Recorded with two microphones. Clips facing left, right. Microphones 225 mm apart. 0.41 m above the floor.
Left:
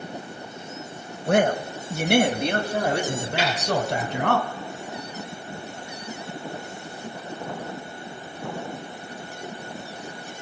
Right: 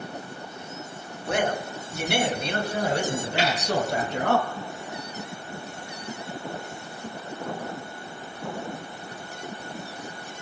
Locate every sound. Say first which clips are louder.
1.3 s a man speaking: left 6 dB; 55° left (ahead or behind), 1.8 m; by 4.4 s 70° left (ahead or behind), 3 m
3.4 s a snare drum: right 1 dB; 45° left (ahead or behind), 9 m